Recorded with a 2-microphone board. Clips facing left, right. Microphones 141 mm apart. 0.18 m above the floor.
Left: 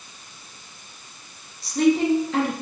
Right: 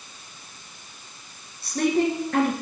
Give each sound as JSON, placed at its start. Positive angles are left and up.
{"t": 1.6, "sound": "a woman speaking", "side_deg": -60, "distance_m": 2.5}